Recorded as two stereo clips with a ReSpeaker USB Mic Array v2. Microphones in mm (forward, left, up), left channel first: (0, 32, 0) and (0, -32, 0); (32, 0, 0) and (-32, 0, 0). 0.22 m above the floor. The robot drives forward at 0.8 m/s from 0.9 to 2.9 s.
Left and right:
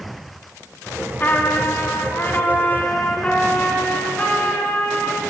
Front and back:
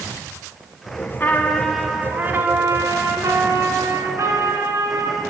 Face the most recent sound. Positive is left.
turn(degrees=155)